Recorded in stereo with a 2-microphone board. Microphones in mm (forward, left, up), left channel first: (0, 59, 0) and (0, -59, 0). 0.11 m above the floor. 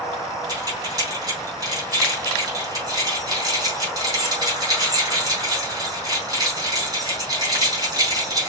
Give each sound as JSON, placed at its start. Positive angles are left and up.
{"t": 0.5, "sound": "keys jangling", "side_deg": -30, "distance_m": 3.5}